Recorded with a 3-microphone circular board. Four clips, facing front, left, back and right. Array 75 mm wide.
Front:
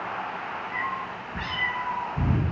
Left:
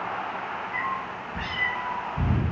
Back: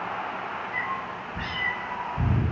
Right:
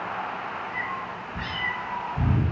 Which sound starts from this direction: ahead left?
A cat meowing, at 0.7 s.